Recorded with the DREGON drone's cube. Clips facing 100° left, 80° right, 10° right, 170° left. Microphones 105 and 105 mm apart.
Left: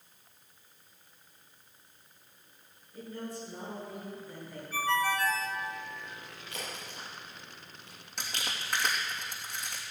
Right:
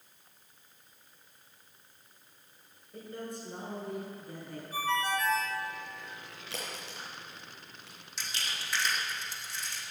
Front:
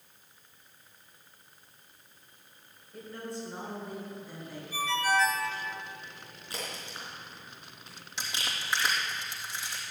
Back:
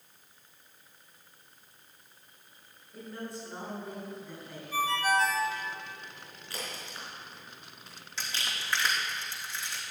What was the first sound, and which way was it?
A man speaking, 105° right.